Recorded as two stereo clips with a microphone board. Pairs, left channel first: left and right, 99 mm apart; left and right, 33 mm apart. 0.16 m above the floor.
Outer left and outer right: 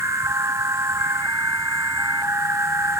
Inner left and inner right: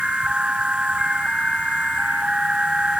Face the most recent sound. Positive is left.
turn(degrees=-30)  # may be behind; listen again after turning